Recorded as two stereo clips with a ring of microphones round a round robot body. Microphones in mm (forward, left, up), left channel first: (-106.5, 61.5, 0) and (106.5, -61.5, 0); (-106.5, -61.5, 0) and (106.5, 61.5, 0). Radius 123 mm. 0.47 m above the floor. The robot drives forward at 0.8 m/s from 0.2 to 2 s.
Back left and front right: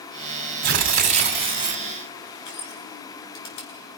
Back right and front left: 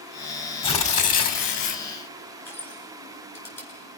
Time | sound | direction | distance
0.6 | tearing paper | 80° right | 2 m
2.5 | crushing | 130° left | 7 m